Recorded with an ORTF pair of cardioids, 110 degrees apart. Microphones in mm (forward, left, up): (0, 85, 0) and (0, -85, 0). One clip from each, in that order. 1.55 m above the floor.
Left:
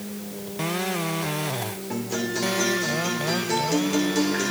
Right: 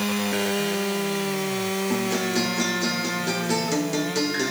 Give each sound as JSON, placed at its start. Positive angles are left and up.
{"t": 1.9, "sound": "a guitar", "azimuth_deg": -15, "distance_m": 3.0}